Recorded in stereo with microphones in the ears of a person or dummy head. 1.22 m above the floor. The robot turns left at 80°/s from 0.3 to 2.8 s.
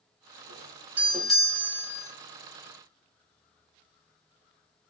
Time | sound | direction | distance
0.5 | a doorbell | 20° right (ahead or behind) | 0.9 m